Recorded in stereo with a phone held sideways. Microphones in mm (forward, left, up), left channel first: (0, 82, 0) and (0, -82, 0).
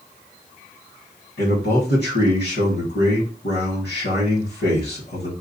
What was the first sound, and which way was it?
A man speaking, 80° left.